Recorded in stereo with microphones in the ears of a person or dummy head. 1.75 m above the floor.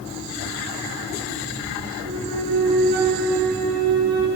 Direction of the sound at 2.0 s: 55° right (ahead or behind).